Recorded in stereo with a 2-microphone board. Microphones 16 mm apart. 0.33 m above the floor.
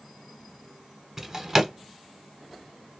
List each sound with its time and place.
1.2 s a drawer: 25° right (ahead or behind), 0.9 m